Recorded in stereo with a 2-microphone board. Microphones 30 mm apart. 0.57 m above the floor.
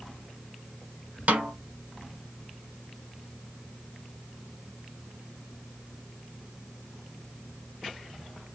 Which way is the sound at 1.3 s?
60° right (ahead or behind).